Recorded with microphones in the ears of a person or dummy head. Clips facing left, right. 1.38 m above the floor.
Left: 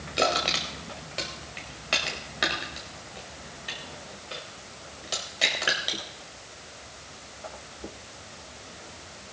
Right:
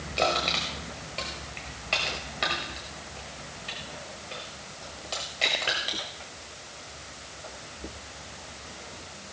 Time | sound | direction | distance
0.2 | crushing | 10° left (ahead or behind) | 1.4 m